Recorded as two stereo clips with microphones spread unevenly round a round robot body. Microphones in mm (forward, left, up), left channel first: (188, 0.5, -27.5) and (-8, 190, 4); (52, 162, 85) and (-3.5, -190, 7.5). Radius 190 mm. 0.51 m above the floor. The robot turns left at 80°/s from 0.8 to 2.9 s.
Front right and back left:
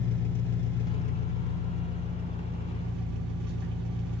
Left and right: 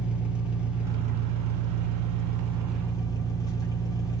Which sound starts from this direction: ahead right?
An engine running, at 0.0 s.